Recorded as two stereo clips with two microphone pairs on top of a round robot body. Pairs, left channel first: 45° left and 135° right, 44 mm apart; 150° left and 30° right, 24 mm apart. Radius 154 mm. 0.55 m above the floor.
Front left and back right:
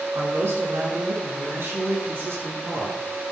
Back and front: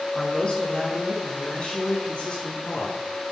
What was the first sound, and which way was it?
A man speaking, 150° right.